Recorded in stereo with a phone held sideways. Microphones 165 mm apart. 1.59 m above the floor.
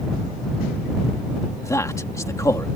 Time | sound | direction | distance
1.6 | a man speaking | 20° left (ahead or behind) | ?